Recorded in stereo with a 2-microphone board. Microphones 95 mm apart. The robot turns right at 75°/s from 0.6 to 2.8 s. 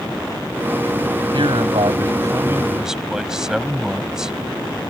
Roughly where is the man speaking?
Behind right.